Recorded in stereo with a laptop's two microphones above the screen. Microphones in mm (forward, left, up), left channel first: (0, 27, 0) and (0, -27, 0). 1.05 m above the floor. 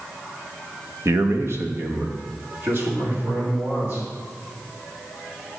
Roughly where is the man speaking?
Right.